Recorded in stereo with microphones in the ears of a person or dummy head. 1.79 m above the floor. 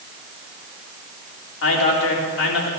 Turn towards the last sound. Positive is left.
turn(degrees=80)